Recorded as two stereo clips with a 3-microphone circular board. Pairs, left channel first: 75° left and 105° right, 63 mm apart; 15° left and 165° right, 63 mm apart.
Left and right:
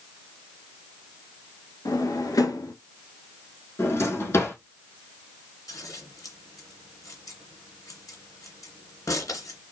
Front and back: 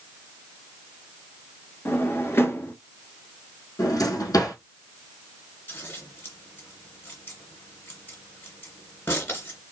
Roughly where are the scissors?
Ahead left.